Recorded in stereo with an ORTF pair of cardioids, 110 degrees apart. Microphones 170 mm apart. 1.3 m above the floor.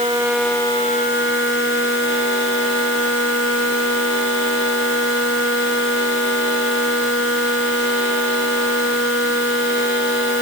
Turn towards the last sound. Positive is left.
No sound to turn to.